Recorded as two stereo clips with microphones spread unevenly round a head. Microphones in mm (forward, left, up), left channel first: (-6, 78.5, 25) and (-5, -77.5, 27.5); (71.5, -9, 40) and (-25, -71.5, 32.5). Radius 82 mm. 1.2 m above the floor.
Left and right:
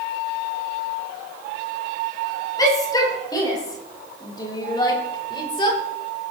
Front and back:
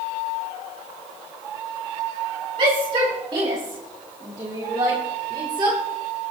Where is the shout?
155° left, 9 m; by 5.8 s 150° left, 4 m.